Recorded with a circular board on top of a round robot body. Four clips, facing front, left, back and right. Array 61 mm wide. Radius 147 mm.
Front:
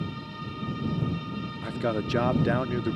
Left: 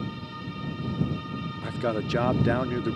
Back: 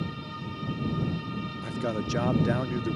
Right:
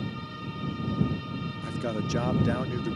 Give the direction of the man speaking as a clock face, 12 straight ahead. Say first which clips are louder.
Left 4 dB, front 3 dB; 10 o'clock.